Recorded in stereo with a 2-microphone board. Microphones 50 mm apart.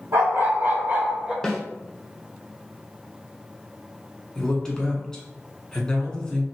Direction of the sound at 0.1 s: 65° right (ahead or behind).